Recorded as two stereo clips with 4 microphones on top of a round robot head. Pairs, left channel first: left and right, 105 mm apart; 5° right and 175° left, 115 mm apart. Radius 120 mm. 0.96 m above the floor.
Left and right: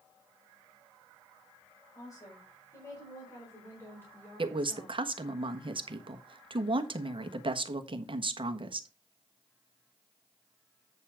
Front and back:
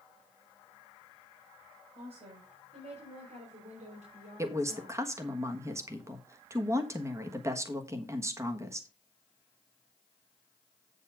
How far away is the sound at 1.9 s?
About 5.5 m.